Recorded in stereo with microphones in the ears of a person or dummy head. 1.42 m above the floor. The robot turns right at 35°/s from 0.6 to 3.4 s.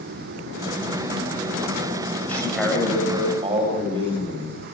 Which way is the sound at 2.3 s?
165° left.